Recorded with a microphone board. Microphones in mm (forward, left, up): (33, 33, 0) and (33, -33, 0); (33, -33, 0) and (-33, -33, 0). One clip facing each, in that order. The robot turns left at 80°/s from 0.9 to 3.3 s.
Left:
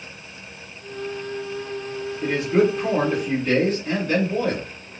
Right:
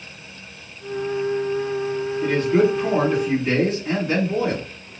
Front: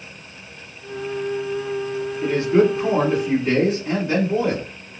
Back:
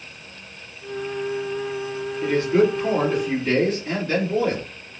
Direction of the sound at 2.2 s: 50° left.